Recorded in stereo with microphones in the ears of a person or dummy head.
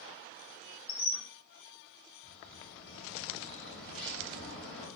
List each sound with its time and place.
0.9 s a squeak: 25° left (ahead or behind), 2.5 m
2.2 s a bird: 5° left (ahead or behind), 2.5 m